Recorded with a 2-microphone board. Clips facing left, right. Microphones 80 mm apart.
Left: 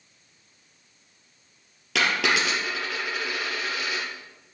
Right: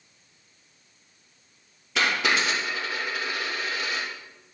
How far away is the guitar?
I don't hear a guitar.